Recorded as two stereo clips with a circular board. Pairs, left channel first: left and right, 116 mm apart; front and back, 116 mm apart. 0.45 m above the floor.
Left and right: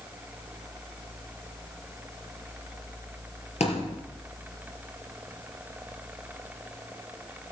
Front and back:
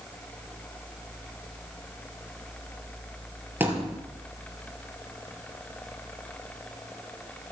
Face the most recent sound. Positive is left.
turn(degrees=105)